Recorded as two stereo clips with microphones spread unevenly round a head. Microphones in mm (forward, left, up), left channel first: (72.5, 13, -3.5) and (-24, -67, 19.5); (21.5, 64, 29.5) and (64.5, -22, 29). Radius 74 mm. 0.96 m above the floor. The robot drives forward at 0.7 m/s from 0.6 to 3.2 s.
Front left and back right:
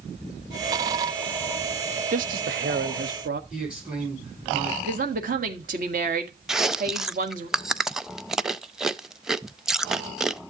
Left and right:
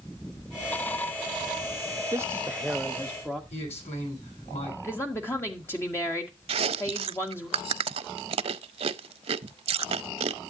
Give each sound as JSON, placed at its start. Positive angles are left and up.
{"t": 2.1, "sound": "a man speaking", "azimuth_deg": -125, "distance_m": 0.5}
{"t": 3.5, "sound": "a man speaking", "azimuth_deg": 135, "distance_m": 9.5}
{"t": 4.8, "sound": "a woman speaking", "azimuth_deg": -175, "distance_m": 1.5}
{"t": 6.5, "sound": "chewing", "azimuth_deg": -55, "distance_m": 0.5}